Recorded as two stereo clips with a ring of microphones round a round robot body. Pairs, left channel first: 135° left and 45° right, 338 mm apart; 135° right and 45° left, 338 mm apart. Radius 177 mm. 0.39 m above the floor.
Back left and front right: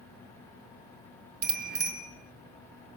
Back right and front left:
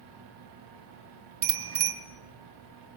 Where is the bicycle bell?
15° left, 2.5 m.